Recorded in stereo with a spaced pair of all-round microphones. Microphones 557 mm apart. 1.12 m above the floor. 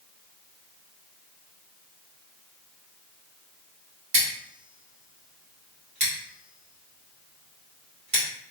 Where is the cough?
I don't hear a cough.